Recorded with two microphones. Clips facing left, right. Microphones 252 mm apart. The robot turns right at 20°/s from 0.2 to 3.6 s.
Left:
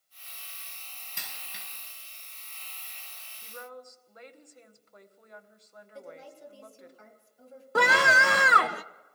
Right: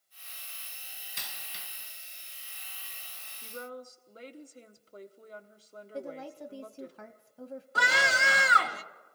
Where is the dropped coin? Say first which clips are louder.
Left 1 dB; 55° left (ahead or behind), 5.5 m; by 1.6 s 65° left (ahead or behind), 5.5 m.